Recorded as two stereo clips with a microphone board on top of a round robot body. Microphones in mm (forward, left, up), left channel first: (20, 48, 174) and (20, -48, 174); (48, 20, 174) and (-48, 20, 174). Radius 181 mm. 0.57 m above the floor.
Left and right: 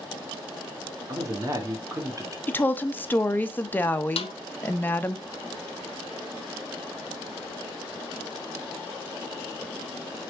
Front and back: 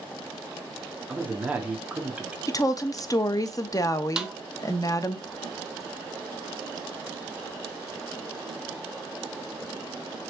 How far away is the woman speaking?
About 0.7 m.